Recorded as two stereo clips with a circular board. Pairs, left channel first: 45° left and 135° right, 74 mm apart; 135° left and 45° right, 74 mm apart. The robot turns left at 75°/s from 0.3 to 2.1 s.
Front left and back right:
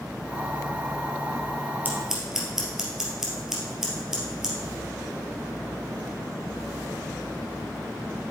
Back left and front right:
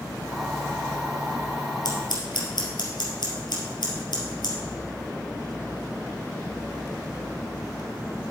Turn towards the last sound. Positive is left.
turn(degrees=140)